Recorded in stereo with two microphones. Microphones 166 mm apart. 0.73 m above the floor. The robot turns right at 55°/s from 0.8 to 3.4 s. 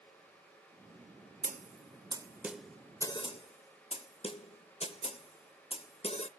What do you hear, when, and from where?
1.4 s a snare drum: 55° right (ahead or behind), 0.6 m; by 6.3 s 35° left (ahead or behind), 0.6 m